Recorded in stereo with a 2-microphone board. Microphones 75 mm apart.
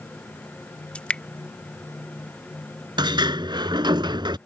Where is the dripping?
15° left (ahead or behind).